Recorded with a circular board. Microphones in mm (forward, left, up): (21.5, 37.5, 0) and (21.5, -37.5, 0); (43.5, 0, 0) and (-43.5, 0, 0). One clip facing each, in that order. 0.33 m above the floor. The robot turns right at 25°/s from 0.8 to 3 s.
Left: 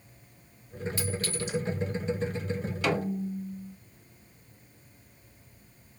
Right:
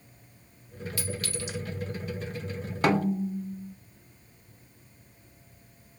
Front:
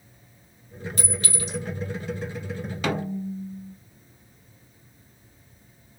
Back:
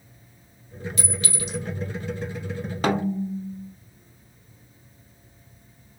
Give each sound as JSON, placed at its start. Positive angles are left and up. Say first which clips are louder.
{"t": 1.0, "sound": "a clink", "louder": "even, front 1 dB", "azimuth_deg": 30, "distance_m": 1.3}
{"t": 2.8, "sound": "a snare drum", "louder": "right 5 dB, back 4 dB", "azimuth_deg": -130, "distance_m": 0.6}